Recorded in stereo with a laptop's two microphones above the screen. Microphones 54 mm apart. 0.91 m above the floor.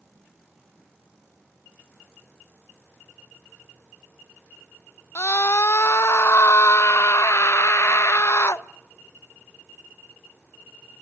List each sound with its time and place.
5.2 s a scream: 55° left (ahead or behind), 0.7 m